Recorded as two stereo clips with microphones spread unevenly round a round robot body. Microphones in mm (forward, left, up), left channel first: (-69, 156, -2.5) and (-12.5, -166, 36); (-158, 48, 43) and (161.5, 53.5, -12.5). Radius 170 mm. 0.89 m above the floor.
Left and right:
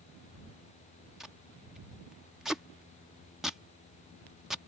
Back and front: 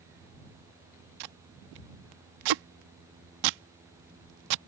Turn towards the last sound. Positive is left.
turn(degrees=10)